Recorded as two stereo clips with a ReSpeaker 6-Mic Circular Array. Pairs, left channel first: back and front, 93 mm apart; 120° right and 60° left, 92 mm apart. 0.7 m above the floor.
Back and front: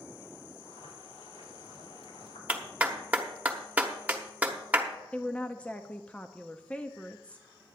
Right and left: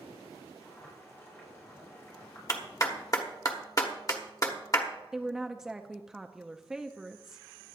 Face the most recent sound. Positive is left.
turn(degrees=135)